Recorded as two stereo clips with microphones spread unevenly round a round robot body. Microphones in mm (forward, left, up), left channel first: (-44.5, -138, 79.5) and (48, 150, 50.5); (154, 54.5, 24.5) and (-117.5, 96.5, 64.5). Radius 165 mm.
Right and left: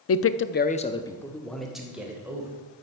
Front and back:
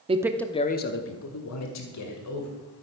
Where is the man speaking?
120° right, 0.8 m; by 2.5 s 10° right, 2.5 m.